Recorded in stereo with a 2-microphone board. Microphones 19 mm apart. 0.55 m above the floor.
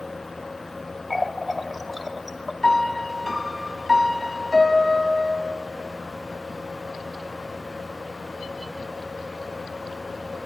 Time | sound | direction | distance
1.1 | a running tap | 10° right (ahead or behind) | 0.5 m
2.6 | a piano | 15° left (ahead or behind) | 0.7 m